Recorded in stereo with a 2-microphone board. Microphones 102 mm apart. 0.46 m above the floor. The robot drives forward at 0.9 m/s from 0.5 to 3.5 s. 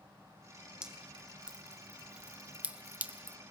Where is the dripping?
10° right (ahead or behind), 3 m; by 3.4 s 20° right (ahead or behind), 1.3 m.